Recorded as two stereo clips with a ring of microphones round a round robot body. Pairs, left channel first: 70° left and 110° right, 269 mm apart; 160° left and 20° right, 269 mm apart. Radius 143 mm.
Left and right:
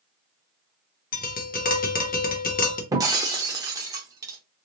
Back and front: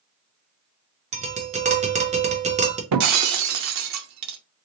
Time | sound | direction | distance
1.1 | tapping | 30° left | 0.8 m
2.9 | breaking glass | 35° right | 0.5 m